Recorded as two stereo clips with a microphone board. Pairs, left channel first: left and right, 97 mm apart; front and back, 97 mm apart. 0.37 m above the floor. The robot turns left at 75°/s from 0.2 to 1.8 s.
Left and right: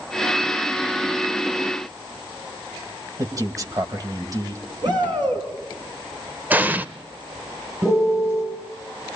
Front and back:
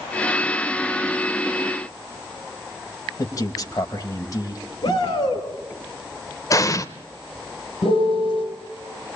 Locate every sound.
3.2 s a man speaking: 45° right, 2.5 m
4.8 s a shout: 45° right, 5 m
6.5 s an explosion: 25° right, 0.8 m
7.8 s a piano: 25° right, 7.5 m